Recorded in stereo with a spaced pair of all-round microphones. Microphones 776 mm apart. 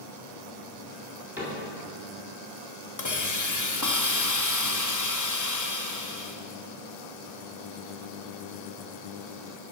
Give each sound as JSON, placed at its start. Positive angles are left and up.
{"t": 1.4, "sound": "a cupboard door", "side_deg": -5, "distance_m": 3.0}
{"t": 3.0, "sound": "a hiss", "side_deg": 25, "distance_m": 0.8}